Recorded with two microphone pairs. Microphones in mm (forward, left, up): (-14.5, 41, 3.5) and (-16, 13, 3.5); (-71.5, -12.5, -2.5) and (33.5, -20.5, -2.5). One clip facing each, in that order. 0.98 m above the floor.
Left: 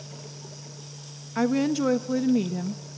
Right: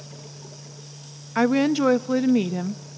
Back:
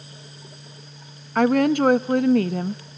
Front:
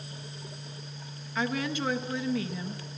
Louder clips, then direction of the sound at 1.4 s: Right 4 dB, back 13 dB; 155° right.